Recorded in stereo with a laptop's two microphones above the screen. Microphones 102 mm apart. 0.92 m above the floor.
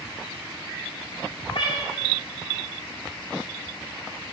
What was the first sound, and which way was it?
A cat meowing, 70° left (ahead or behind).